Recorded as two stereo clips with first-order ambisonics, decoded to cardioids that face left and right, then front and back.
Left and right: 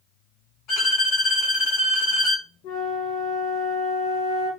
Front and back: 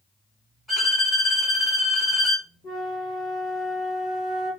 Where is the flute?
55° left, 1.0 m.